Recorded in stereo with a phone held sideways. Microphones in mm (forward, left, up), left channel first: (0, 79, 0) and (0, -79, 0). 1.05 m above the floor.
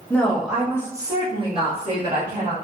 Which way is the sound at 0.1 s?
10° left (ahead or behind).